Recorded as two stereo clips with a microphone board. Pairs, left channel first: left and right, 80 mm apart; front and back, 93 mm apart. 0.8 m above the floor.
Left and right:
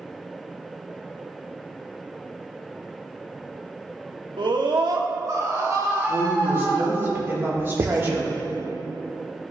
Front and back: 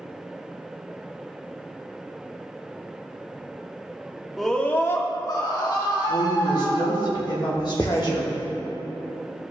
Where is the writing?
60° right, 0.6 m.